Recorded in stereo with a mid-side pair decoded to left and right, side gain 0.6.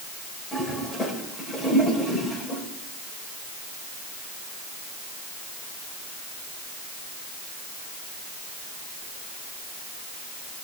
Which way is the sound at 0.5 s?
20° left.